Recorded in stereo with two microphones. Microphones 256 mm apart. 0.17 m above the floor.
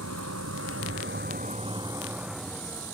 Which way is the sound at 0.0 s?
85° right.